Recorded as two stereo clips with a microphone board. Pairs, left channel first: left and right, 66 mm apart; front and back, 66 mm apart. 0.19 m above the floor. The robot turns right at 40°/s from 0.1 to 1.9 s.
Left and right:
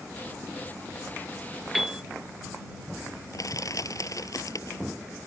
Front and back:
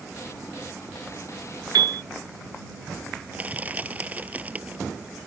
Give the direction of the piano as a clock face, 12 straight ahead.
6 o'clock.